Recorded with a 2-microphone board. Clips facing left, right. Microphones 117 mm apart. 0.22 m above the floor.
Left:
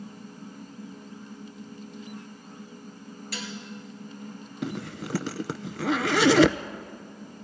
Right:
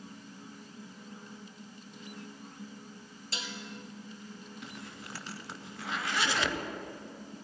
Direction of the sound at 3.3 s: 25° right (ahead or behind).